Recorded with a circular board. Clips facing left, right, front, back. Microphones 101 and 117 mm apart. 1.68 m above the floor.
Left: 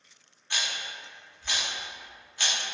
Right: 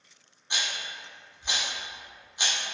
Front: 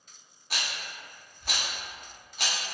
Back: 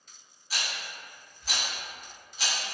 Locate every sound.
0.5 s a rattle: 20° right, 0.6 m